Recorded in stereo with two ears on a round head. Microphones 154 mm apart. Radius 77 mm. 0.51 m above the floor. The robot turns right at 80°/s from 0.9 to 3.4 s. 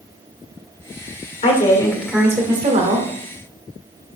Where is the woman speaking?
130° left, 1.8 m; by 3.1 s 100° right, 1.8 m.